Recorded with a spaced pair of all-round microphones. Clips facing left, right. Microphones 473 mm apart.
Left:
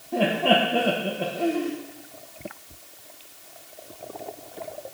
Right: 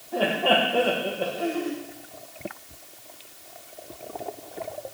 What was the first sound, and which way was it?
Laughter, 40° left (ahead or behind).